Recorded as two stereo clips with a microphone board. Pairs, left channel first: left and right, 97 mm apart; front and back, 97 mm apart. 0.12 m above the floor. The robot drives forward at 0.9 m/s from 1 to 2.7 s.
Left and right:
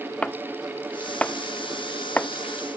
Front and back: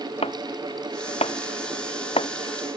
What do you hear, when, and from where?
0.2 s chopping: 10° left; by 2.3 s 15° left